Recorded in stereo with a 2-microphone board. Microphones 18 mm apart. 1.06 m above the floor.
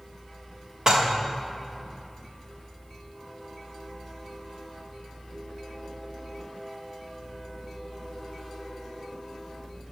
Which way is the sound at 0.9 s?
40° right (ahead or behind).